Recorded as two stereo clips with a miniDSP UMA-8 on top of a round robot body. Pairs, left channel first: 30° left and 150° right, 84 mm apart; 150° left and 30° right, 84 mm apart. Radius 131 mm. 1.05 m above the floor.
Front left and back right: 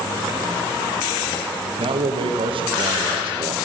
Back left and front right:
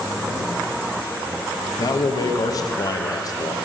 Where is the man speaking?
165° right, 0.9 m.